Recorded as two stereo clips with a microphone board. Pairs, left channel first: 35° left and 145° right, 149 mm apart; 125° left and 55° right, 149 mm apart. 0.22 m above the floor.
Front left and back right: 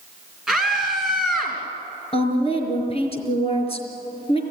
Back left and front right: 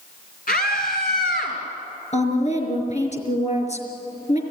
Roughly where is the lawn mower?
No lawn mower in this recording.